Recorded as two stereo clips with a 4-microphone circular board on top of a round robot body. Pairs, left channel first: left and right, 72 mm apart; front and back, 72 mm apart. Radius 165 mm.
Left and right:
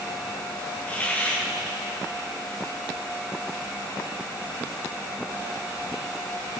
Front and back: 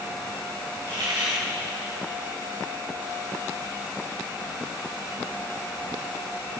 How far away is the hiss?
About 4 m.